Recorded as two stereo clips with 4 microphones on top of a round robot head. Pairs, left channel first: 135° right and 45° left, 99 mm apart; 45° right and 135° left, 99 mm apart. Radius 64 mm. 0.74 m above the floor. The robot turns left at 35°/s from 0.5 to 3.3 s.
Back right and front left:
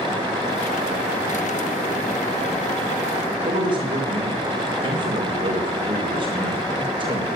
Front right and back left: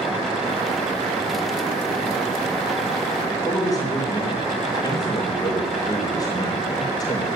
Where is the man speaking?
5° left, 3.5 m.